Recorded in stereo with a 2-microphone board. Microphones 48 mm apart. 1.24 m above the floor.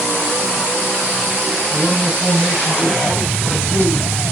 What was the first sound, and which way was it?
A man speaking, 40° right (ahead or behind).